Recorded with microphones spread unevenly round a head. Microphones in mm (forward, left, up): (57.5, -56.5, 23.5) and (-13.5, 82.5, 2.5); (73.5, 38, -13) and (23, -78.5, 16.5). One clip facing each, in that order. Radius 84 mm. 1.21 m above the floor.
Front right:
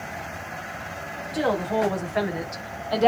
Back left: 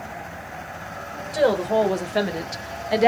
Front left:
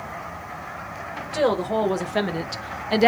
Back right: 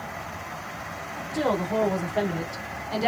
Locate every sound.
1.3 s a woman speaking: 80° left, 1.6 m; by 3.1 s 35° left, 0.6 m